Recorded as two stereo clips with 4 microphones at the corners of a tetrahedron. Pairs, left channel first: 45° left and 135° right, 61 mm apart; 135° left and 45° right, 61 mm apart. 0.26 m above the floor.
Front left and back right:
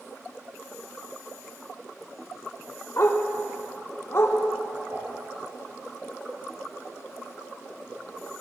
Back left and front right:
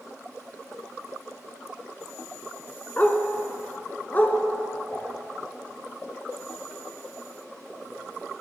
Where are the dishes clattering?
170° right, 5 m.